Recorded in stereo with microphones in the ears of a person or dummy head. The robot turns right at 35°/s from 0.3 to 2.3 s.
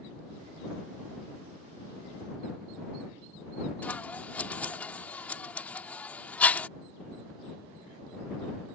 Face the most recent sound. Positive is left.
turn(degrees=5)  # may be behind; listen again after turning